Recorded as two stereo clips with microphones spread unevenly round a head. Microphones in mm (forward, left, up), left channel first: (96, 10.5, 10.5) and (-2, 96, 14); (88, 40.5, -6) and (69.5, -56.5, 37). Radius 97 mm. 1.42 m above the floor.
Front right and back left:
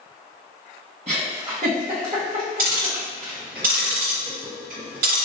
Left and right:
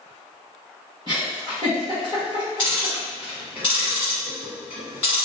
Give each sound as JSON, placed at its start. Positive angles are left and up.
{"t": 1.1, "sound": "a giggle", "azimuth_deg": -160, "distance_m": 1.0}
{"t": 2.6, "sound": "ticking", "azimuth_deg": 175, "distance_m": 1.6}